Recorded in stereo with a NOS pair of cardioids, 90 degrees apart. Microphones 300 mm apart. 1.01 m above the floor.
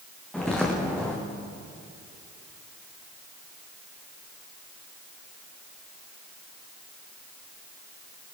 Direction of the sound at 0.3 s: 5° left.